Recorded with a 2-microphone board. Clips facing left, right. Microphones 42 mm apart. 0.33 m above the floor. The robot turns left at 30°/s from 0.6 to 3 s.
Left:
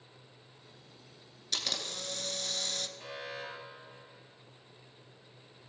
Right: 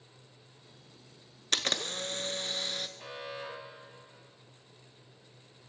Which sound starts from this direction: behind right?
A camera shutter, at 1.5 s.